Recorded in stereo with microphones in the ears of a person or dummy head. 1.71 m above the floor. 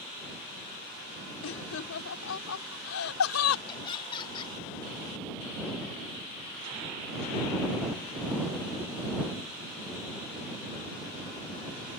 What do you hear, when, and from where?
1.4 s laughter: 80° left; by 3.6 s 90° left
3.7 s laughter: 25° left (ahead or behind)